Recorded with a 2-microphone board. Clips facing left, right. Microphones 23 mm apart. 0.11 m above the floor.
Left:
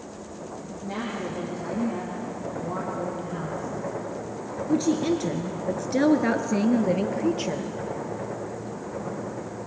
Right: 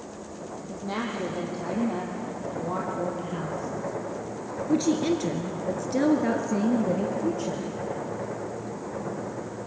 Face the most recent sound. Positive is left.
turn(degrees=60)  # may be behind; listen again after turning